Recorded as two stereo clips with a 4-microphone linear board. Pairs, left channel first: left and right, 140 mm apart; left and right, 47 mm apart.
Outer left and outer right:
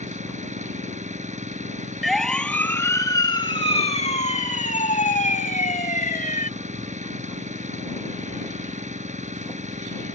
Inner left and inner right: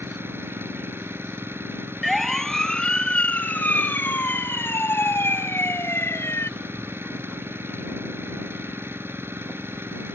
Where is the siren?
Centre (ahead or behind); by 6.5 s 75° left (ahead or behind).